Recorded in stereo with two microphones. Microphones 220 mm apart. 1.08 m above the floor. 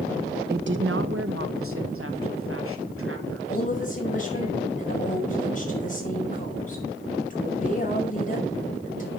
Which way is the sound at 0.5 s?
50° right (ahead or behind).